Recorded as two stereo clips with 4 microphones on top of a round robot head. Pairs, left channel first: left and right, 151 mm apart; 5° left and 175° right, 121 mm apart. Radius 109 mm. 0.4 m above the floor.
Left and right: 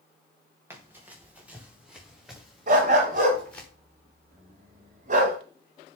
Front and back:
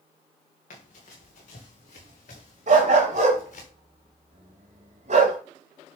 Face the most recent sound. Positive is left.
turn(degrees=-135)